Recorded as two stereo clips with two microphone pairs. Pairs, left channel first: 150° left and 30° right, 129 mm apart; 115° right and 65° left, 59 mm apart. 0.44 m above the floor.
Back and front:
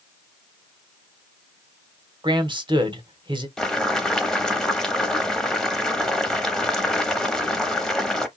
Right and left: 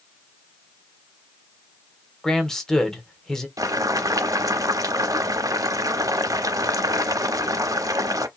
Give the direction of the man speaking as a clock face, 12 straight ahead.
1 o'clock.